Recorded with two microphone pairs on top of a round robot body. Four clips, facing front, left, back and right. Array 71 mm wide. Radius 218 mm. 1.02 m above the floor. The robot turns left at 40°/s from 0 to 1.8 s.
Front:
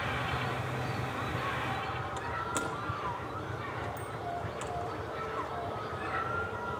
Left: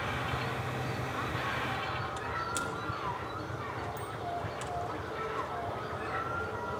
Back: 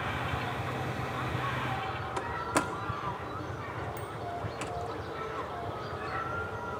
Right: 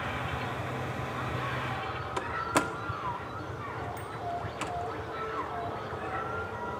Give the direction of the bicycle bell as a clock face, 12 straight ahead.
4 o'clock.